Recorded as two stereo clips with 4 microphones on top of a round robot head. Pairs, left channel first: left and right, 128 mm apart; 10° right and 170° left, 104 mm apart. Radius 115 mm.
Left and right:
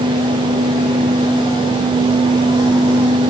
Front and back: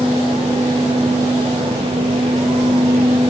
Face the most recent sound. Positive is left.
No sound to turn to.